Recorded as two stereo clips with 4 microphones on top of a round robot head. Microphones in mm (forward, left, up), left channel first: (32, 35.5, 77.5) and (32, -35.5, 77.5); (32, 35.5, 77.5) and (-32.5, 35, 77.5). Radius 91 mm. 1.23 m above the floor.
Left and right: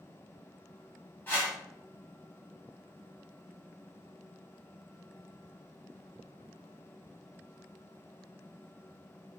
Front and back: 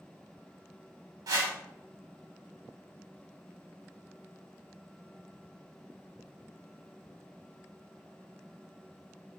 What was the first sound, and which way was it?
A whoosh, 160° left.